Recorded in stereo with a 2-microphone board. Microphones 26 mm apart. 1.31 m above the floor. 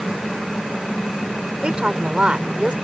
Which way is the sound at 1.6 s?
40° right (ahead or behind).